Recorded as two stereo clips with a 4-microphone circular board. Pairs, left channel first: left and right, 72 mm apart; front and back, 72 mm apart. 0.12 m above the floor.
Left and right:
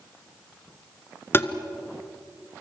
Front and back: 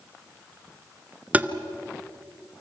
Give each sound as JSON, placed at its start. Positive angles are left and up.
{"t": 1.3, "sound": "tapping", "azimuth_deg": 125, "distance_m": 1.1}